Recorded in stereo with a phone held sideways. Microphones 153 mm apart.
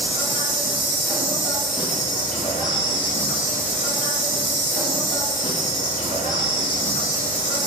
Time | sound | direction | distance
0.0 | an insect | 60° left (ahead or behind) | 3 m